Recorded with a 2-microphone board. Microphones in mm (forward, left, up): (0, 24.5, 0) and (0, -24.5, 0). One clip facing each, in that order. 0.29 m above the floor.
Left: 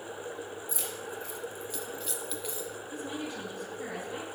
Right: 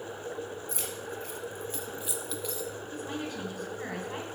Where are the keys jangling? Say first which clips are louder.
Right 1 dB; 60° right (ahead or behind), 1.6 m; by 2.7 s 15° left (ahead or behind), 1.2 m.